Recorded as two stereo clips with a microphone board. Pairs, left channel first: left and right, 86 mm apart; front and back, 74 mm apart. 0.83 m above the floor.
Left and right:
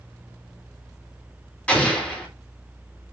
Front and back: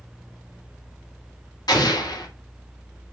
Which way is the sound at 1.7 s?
15° left.